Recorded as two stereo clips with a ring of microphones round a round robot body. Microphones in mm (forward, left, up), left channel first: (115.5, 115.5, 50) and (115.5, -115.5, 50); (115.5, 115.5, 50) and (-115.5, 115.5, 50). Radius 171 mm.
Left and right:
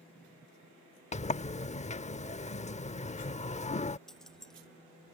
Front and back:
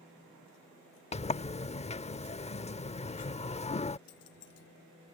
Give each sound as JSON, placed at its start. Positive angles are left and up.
{"t": 1.1, "sound": "a sliding door", "azimuth_deg": 45}
{"t": 4.1, "sound": "keys jangling", "azimuth_deg": 0}